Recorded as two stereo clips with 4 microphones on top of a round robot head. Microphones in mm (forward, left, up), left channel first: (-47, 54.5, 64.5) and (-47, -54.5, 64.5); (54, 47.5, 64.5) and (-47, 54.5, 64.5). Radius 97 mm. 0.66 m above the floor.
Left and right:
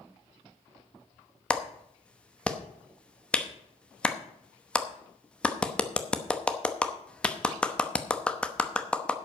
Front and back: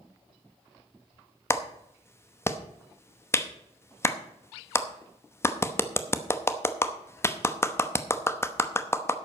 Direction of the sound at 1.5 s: 20° left.